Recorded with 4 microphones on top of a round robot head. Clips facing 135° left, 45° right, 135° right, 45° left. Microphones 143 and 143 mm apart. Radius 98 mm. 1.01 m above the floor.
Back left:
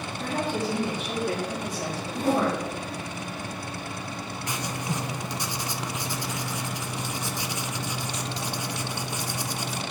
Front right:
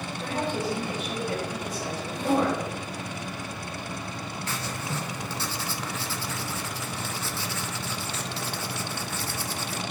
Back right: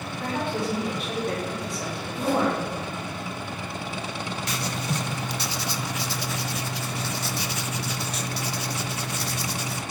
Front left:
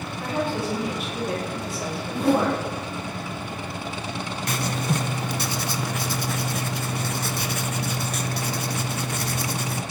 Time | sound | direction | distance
0.2 | a woman speaking | 130° left | 2.5 m
2.1 | a whoosh | 80° left | 1.0 m
4.5 | writing | 65° left | 0.5 m